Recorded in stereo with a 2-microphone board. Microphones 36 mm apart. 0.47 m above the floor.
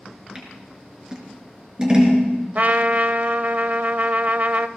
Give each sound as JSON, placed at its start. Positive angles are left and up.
{"t": 0.3, "sound": "scissors", "side_deg": -20, "distance_m": 4.0}
{"t": 2.5, "sound": "a trumpet", "side_deg": -45, "distance_m": 0.5}